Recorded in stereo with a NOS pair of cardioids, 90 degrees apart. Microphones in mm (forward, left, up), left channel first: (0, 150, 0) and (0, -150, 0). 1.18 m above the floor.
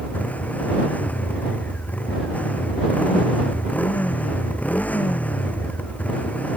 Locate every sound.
0.0 s a motorcycle: 5° left